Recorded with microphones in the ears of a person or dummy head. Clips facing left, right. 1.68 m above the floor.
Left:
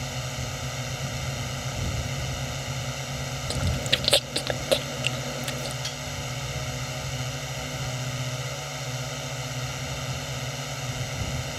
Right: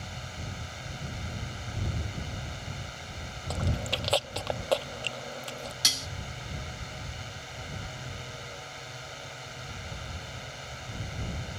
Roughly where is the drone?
Left.